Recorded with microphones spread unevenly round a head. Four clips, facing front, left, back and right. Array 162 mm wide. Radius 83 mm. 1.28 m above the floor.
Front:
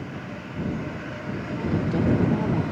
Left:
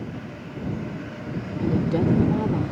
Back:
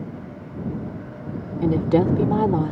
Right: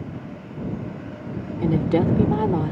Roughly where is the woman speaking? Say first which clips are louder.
Right 3 dB, back 6 dB; behind.